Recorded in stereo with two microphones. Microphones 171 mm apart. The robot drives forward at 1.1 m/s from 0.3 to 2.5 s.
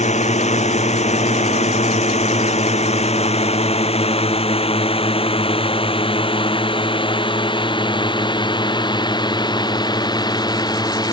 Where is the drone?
40° left (ahead or behind); by 11.1 s 25° left (ahead or behind).